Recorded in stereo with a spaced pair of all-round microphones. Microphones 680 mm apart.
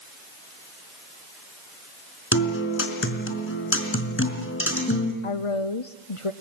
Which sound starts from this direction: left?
A woman speaking, at 5.2 s.